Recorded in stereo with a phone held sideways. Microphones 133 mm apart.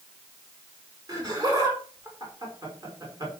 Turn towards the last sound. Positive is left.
turn(degrees=-30)  # may be behind; listen again after turning